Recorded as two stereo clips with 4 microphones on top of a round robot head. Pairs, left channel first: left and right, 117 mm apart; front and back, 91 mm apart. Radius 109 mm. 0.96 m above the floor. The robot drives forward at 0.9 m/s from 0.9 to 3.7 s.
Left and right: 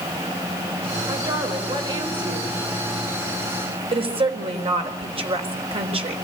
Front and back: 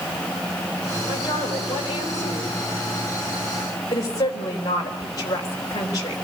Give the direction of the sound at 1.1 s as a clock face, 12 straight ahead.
1 o'clock.